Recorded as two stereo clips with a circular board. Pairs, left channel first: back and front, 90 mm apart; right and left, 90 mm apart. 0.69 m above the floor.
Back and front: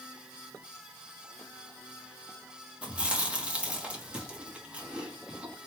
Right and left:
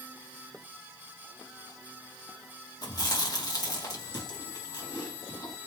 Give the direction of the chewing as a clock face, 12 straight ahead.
2 o'clock.